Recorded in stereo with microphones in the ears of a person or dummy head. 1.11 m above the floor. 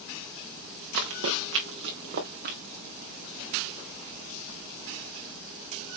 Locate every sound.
0.9 s running footsteps: 70° right (ahead or behind), 3.5 m; by 2.6 s 50° right (ahead or behind), 4 m